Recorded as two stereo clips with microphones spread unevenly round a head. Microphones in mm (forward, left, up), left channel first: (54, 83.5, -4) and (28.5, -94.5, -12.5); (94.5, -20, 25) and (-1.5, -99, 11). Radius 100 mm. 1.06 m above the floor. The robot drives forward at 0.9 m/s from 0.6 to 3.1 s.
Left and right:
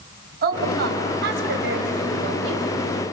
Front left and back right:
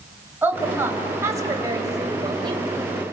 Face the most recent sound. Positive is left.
turn(degrees=-95)